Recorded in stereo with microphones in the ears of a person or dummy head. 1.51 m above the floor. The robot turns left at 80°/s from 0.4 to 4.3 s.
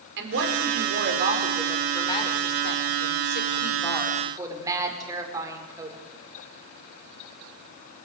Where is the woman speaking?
65° right, 5 m; by 6.0 s 15° right, 5 m.